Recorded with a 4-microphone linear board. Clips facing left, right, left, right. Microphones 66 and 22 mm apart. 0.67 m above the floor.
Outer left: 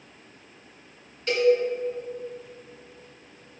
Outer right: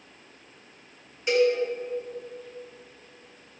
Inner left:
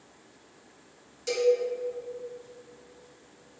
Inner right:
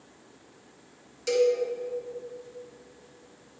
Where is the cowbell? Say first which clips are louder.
Outer left 1 dB, inner right 1 dB; 10° right (ahead or behind), 1.7 m.